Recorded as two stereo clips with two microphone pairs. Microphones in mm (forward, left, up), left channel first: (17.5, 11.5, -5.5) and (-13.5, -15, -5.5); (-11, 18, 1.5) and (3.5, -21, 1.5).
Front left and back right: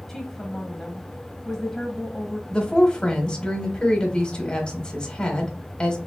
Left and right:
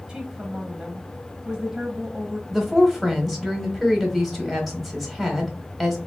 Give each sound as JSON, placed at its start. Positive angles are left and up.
{"t": 0.1, "sound": "a woman speaking", "azimuth_deg": -25, "distance_m": 1.1}
{"t": 2.5, "sound": "a woman speaking", "azimuth_deg": 25, "distance_m": 1.2}